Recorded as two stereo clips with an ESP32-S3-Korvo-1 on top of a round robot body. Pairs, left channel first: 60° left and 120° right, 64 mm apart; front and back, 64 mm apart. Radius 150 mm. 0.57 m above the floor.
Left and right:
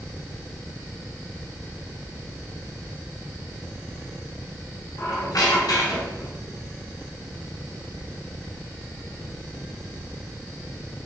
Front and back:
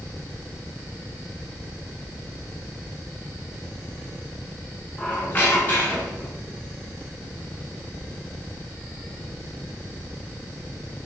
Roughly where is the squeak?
Ahead left.